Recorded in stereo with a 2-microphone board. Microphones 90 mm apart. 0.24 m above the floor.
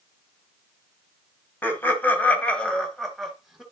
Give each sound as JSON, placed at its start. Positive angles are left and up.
{"t": 1.6, "sound": "laughter", "side_deg": 25, "distance_m": 1.5}